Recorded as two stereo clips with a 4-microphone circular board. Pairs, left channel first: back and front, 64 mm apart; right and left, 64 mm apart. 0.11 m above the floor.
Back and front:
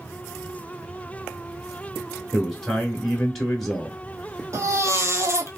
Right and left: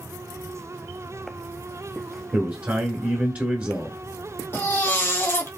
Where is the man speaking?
100° left, 1.1 m.